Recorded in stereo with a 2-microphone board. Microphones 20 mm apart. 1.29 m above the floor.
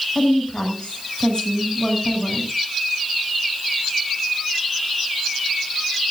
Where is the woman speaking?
55° left (ahead or behind), 7.5 m.